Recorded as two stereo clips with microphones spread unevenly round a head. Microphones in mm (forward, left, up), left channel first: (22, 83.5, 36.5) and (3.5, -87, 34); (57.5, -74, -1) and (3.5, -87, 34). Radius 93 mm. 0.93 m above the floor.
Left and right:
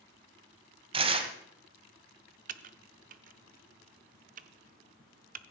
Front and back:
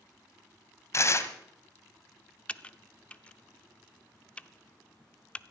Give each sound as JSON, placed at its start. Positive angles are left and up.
{"t": 0.9, "sound": "tearing paper", "azimuth_deg": -40, "distance_m": 1.7}
{"t": 2.5, "sound": "typing on a keyboard", "azimuth_deg": -90, "distance_m": 0.6}